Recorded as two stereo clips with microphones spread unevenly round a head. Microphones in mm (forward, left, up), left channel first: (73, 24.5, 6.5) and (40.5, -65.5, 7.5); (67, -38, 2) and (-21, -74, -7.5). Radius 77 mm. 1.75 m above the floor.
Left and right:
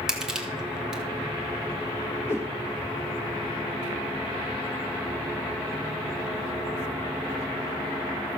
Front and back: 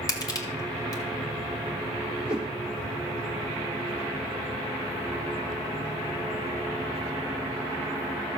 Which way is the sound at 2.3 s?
120° left.